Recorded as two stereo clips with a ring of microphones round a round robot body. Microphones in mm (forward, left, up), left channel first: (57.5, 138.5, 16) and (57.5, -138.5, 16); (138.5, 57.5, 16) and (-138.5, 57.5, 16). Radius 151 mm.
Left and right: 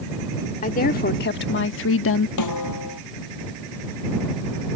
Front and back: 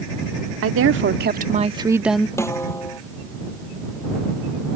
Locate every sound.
0.6 s a woman speaking: 150° left; by 2.3 s 85° left
2.4 s a snare drum: 80° left